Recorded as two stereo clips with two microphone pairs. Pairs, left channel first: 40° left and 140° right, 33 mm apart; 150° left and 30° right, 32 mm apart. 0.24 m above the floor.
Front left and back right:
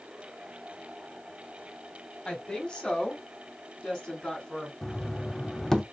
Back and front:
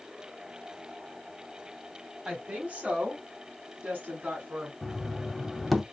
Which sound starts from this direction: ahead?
A woman speaking, at 2.2 s.